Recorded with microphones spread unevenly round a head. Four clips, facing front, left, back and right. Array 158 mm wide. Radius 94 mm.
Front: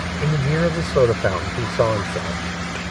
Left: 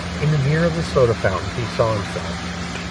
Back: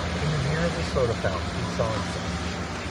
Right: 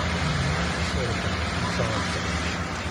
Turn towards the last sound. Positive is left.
turn(degrees=20)